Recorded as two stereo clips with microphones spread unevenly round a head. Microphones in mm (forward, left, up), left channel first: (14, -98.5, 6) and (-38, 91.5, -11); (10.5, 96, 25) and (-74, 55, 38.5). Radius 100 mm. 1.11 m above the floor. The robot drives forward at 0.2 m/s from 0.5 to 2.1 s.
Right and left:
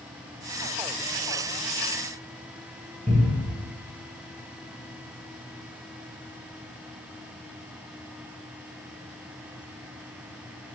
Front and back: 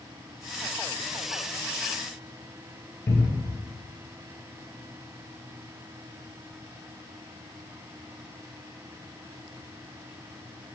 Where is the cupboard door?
70° left, 1.0 m.